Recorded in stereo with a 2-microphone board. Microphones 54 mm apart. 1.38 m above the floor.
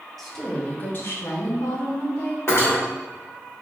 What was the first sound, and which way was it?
A woman speaking, centre (ahead or behind).